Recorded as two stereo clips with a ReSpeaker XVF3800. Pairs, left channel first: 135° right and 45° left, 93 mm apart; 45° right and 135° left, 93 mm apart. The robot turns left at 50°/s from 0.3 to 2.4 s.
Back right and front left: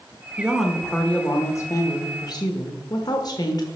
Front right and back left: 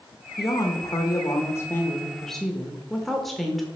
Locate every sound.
0.4 s a woman speaking: 30° right, 1.0 m; by 3.6 s 130° right, 1.0 m